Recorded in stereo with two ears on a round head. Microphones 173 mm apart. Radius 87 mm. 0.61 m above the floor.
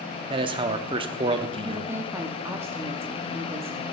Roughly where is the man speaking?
Right.